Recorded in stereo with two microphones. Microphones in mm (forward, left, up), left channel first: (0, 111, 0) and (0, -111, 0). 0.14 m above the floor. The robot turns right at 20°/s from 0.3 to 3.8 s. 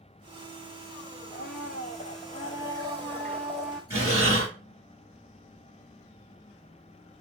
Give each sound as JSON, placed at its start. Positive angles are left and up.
{"t": 1.3, "sound": "a blender", "azimuth_deg": 135, "distance_m": 0.6}
{"t": 3.9, "sound": "breathing", "side_deg": -10, "distance_m": 2.5}